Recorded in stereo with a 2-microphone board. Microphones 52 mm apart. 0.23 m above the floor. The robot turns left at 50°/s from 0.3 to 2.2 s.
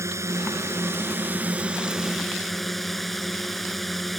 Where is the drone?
85° right; by 4.2 s straight behind.